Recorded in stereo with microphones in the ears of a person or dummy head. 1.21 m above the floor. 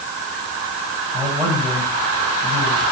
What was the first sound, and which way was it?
A man speaking, 20° right (ahead or behind).